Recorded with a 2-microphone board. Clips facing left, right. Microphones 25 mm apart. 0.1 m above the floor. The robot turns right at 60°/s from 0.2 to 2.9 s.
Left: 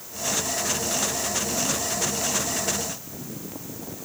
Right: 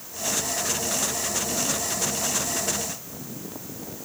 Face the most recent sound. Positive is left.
No sound to turn to.